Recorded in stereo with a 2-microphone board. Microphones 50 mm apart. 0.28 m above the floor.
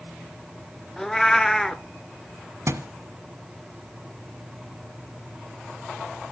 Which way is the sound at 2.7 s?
65° right (ahead or behind).